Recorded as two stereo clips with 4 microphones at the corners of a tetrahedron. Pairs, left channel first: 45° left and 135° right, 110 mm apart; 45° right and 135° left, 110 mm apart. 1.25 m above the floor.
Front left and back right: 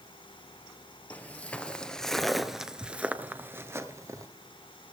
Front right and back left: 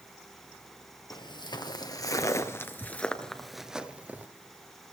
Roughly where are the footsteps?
Ahead right.